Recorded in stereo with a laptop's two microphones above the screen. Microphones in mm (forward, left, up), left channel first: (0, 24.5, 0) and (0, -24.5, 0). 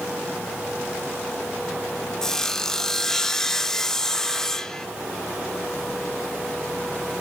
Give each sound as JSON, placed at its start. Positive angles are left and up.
{"t": 2.2, "sound": "sawing", "side_deg": 10, "distance_m": 0.5}